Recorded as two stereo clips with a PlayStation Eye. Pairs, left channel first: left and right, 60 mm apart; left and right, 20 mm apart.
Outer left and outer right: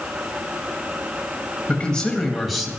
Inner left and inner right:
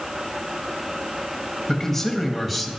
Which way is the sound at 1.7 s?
20° left (ahead or behind).